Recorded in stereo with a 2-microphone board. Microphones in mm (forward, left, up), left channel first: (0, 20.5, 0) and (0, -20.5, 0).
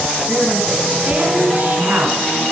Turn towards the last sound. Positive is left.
turn(degrees=-50)  # may be behind; listen again after turning